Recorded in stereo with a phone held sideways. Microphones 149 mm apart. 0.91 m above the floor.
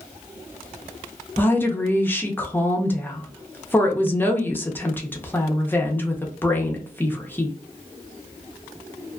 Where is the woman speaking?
15° left (ahead or behind), 0.6 m.